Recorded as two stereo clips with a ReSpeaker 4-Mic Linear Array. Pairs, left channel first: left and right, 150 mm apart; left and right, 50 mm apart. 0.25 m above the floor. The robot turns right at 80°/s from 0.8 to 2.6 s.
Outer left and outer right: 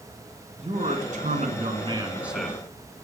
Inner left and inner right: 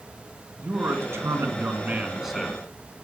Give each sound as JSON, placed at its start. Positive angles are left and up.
{"t": 0.6, "sound": "a man speaking", "azimuth_deg": -125, "distance_m": 2.5}